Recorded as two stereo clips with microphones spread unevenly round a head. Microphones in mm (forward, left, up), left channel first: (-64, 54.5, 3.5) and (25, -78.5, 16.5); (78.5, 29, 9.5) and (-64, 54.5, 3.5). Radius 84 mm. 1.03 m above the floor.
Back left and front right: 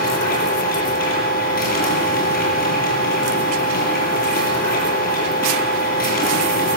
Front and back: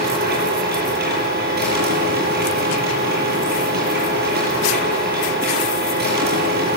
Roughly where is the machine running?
Behind.